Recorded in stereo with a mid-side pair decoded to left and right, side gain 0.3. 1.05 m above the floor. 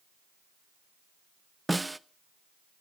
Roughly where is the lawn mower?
No lawn mower in this recording.